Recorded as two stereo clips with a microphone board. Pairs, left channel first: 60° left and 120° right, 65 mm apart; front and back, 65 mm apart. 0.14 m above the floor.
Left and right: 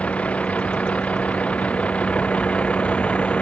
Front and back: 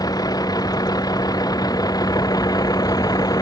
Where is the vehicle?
10° right.